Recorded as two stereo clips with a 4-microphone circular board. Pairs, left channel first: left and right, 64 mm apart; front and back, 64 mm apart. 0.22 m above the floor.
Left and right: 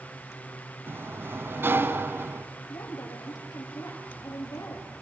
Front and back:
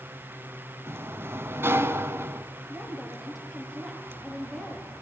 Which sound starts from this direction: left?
A woman speaking, at 2.7 s.